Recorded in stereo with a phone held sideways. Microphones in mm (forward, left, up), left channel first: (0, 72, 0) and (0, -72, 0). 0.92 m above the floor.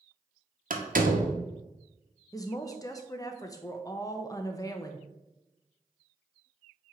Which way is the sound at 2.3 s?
25° left (ahead or behind).